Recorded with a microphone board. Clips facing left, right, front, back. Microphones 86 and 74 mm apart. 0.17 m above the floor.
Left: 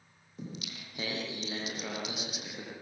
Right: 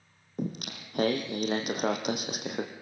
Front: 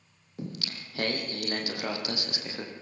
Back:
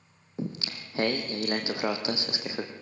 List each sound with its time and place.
0.4 s singing: 120° right, 3.5 m